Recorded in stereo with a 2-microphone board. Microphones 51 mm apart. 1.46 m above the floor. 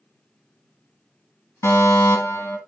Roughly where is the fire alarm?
Left.